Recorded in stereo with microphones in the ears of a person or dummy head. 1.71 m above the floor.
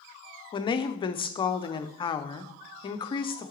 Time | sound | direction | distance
0.5 | a woman speaking | 25° left (ahead or behind) | 0.5 m